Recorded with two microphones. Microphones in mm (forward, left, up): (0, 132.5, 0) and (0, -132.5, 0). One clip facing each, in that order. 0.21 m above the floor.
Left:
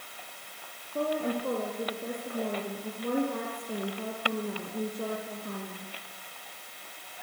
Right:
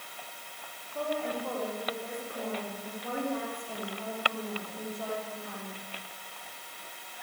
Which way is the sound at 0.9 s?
40° left (ahead or behind).